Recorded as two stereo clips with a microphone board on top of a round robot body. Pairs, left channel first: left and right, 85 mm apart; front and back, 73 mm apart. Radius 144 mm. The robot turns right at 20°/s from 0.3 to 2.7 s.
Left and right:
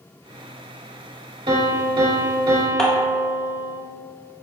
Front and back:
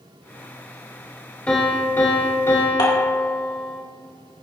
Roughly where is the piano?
Right.